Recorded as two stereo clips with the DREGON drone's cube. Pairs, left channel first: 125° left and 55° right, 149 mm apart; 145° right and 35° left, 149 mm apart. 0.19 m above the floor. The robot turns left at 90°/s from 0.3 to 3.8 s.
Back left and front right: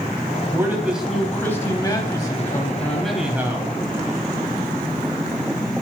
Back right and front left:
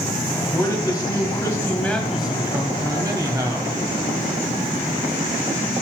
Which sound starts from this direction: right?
A man speaking, at 0.5 s.